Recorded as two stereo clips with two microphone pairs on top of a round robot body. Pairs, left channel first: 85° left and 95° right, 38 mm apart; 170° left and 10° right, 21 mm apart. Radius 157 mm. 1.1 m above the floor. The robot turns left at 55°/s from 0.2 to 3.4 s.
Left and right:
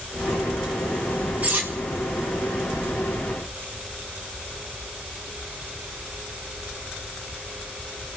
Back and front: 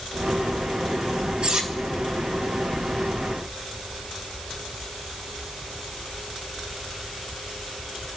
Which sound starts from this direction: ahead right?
Cutlery clinking, at 1.4 s.